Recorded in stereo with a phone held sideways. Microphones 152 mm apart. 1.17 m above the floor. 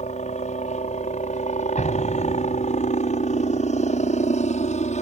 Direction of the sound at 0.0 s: 50° left (ahead or behind).